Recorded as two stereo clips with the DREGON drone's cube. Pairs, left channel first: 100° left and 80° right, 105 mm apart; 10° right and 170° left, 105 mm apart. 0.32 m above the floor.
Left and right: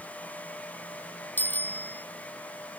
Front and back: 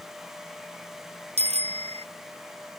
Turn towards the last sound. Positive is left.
turn(degrees=175)